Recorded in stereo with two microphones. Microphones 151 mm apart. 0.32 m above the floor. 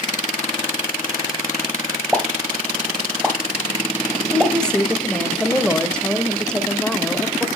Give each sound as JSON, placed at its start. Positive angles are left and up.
{"t": 2.1, "sound": "a pop", "side_deg": -5, "distance_m": 1.2}
{"t": 4.3, "sound": "a woman speaking", "side_deg": 5, "distance_m": 0.9}